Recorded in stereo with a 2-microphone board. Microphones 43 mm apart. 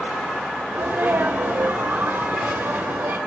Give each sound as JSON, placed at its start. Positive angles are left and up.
{"t": 0.7, "sound": "a sneeze", "side_deg": -60, "distance_m": 2.5}